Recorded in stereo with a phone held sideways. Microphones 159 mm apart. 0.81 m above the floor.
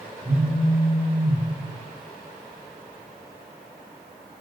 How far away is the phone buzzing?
About 5 m.